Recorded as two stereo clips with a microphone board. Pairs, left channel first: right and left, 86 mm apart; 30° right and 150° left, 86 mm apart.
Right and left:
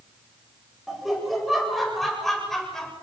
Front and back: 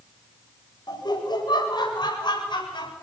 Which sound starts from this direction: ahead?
Laughter, at 0.9 s.